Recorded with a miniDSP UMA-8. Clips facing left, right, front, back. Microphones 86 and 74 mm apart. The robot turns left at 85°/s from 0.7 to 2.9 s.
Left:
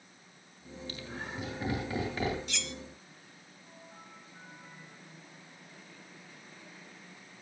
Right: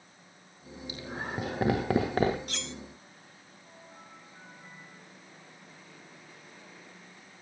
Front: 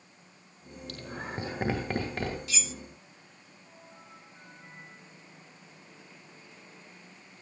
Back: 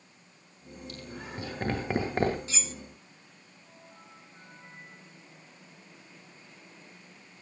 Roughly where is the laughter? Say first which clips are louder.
Right 5 dB, front 4 dB; ahead.